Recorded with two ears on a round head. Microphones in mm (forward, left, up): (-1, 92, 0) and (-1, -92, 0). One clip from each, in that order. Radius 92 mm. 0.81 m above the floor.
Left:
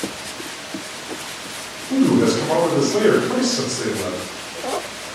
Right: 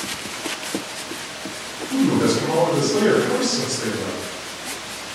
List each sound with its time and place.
1.9 s a man speaking: 25° left (ahead or behind), 1.7 m